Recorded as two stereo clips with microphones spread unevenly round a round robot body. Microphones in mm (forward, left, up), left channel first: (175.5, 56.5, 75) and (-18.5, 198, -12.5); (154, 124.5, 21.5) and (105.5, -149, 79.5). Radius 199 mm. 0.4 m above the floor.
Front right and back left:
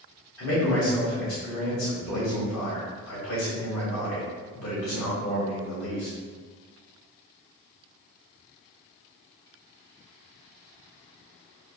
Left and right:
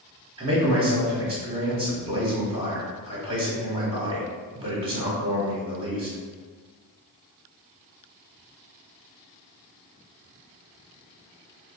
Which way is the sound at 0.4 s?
20° right.